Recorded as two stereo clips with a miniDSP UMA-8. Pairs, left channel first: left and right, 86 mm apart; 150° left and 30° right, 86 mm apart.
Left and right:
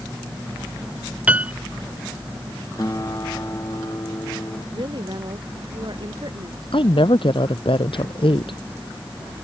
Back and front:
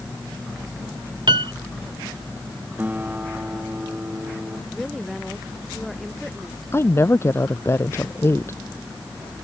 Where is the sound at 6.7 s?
90° left.